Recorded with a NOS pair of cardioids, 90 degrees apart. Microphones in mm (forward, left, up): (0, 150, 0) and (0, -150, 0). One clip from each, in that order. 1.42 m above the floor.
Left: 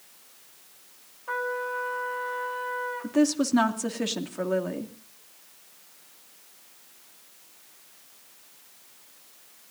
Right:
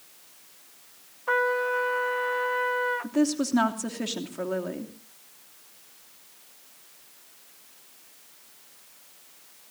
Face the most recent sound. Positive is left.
turn(degrees=15)